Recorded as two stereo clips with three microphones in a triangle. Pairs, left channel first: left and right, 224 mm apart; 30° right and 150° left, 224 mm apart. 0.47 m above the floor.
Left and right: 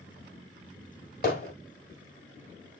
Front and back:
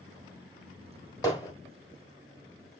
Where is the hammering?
45° left, 2.5 m.